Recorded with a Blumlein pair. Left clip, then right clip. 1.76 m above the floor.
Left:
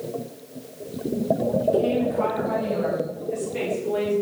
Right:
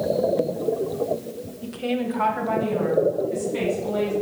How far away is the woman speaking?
About 0.7 m.